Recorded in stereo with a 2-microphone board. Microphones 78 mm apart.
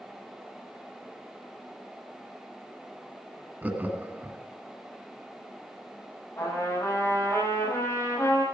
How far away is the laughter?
About 1.8 m.